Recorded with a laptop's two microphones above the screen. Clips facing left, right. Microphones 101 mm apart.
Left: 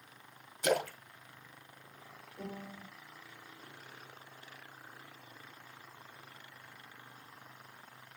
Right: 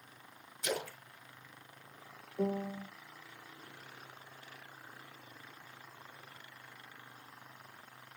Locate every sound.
0.6 s a splash: 60° left (ahead or behind), 1.4 m
2.4 s a piano: 45° right (ahead or behind), 0.8 m